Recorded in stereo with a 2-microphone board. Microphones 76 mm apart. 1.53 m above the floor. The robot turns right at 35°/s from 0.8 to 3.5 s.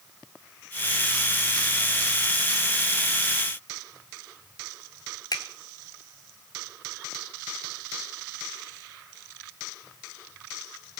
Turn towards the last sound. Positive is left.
turn(degrees=60)  # may be behind; listen again after turning